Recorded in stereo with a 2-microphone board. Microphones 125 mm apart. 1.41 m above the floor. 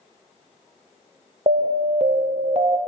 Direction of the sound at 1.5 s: 55° right (ahead or behind).